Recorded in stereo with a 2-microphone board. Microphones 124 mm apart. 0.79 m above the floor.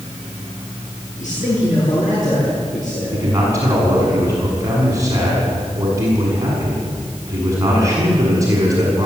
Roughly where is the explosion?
I don't hear an explosion.